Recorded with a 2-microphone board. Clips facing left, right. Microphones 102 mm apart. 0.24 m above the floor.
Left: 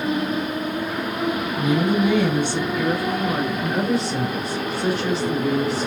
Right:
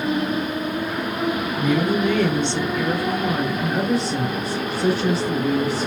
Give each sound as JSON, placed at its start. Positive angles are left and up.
{"t": 1.6, "sound": "a woman speaking", "side_deg": 15, "distance_m": 1.4}